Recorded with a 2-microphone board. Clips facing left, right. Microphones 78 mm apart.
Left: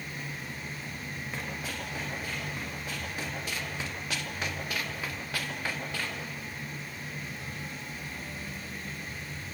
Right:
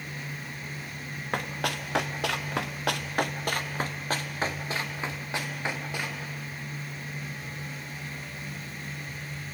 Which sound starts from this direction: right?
Running footsteps, at 1.3 s.